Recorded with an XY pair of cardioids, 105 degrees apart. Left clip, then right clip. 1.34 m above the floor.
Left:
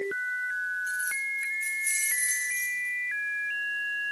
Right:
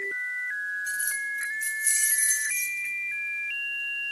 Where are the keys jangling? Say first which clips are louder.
Even; 40° right, 3.5 m.